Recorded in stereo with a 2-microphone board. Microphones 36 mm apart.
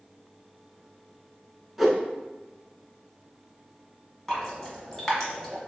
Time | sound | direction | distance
1.8 | a whoosh | 10° right (ahead or behind) | 0.6 m
4.3 | dripping | 5° left (ahead or behind) | 1.2 m